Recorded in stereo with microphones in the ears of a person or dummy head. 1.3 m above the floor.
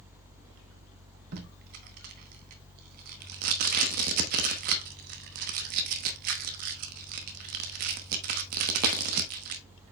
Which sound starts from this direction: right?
Tape being pulled, at 1.3 s.